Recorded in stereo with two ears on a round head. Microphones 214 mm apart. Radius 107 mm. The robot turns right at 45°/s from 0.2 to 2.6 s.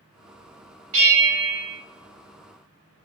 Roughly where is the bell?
Right.